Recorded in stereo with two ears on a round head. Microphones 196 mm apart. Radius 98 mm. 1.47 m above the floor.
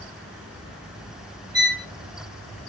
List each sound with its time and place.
1.5 s a violin: 20° right (ahead or behind), 0.6 m